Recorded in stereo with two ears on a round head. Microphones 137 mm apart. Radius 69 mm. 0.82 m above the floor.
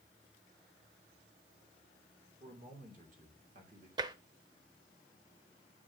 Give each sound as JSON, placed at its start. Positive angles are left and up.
{"t": 2.4, "sound": "a man speaking", "side_deg": -55, "distance_m": 2.5}
{"t": 4.0, "sound": "tapping", "side_deg": -30, "distance_m": 0.6}